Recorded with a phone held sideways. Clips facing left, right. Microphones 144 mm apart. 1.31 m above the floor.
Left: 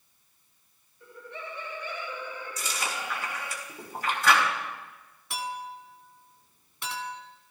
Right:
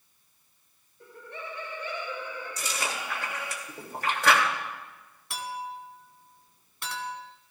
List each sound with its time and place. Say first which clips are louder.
1.0 s laughter: even; 65° right (ahead or behind), 3.5 m; by 3.6 s 85° right, 6.5 m
2.6 s chewing: right 1 dB; 65° right (ahead or behind), 2.5 m
5.3 s a clink: even; centre (ahead or behind), 2 m